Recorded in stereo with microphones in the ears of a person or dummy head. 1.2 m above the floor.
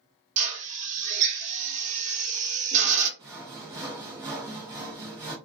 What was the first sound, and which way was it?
A drill, 40° right (ahead or behind).